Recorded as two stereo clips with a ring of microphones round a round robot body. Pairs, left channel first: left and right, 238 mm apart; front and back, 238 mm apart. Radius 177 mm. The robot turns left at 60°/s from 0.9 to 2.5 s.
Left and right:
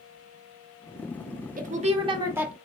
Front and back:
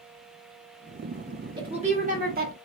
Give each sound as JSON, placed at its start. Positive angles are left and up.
{"t": 1.6, "sound": "a woman speaking", "azimuth_deg": -115, "distance_m": 1.1}